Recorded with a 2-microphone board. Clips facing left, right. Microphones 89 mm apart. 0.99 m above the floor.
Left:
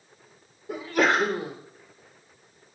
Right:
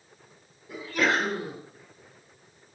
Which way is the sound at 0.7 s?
35° left (ahead or behind).